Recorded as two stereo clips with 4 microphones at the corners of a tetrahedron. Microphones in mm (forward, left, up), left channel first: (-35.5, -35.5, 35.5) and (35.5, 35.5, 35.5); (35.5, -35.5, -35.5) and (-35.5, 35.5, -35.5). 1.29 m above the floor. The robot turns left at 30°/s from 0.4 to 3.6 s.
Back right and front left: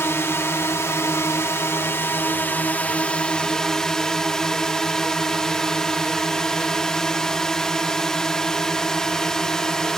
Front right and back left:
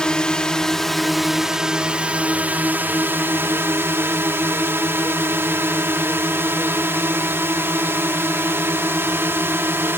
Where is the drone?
115° right; by 10.0 s 150° left.